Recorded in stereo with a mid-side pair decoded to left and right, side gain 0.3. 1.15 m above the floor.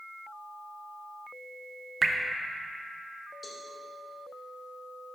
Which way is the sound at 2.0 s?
40° right.